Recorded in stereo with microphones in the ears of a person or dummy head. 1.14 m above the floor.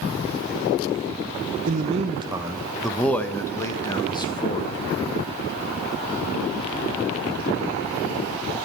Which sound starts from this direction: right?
A man speaking, at 1.7 s.